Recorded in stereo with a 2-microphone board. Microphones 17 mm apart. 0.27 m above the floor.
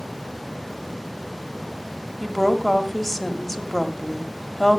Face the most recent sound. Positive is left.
turn(degrees=10)  # may be behind; listen again after turning